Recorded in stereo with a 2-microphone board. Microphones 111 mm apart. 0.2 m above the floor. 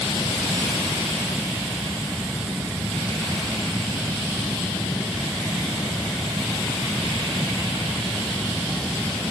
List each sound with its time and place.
Only background noise.